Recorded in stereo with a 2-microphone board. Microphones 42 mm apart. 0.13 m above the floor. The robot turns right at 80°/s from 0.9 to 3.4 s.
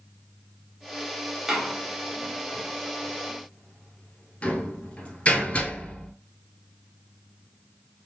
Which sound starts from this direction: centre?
A door slam, at 1.5 s.